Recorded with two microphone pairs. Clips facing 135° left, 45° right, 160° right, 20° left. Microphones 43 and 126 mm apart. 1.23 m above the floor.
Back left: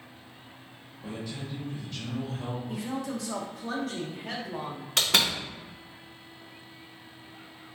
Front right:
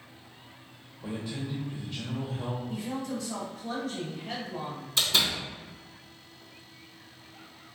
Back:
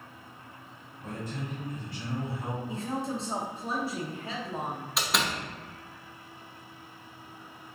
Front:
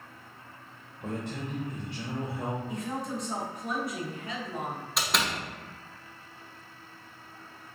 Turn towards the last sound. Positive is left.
turn(degrees=115)